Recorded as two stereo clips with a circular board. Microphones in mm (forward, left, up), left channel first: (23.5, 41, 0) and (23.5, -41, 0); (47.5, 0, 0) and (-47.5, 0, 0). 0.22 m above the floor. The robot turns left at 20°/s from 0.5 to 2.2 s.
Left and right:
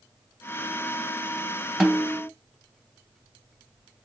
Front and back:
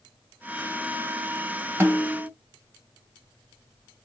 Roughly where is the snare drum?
Behind.